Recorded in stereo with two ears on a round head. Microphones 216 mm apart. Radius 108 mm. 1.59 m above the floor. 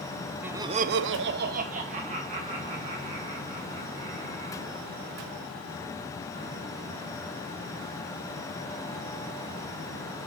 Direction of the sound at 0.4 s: 5° right (ahead or behind).